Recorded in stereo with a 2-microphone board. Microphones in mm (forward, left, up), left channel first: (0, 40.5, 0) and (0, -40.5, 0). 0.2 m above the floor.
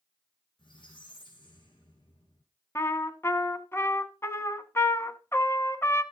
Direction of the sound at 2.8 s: 30° left (ahead or behind).